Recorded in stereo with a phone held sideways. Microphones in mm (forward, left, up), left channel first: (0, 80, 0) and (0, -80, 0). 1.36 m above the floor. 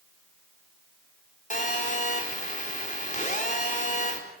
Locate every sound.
1.5 s a phone buzzing: 50° left (ahead or behind), 4 m